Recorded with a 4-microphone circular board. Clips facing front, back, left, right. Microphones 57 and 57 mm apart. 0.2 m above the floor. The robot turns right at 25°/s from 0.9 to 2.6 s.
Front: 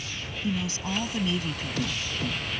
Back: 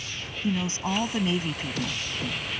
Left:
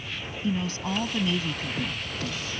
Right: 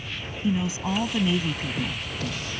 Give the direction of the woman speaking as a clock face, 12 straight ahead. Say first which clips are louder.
Back 3 dB, right 3 dB; 5 o'clock.